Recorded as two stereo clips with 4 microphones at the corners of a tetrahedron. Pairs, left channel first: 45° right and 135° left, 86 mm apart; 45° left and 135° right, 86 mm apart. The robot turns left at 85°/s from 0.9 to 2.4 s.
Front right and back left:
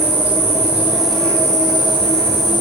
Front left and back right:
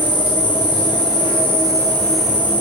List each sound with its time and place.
0.0 s an insect: 65° left, 3 m; by 2.6 s 60° right, 3 m